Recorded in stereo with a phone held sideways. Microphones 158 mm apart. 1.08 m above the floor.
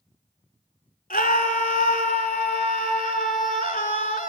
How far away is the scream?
About 2.5 m.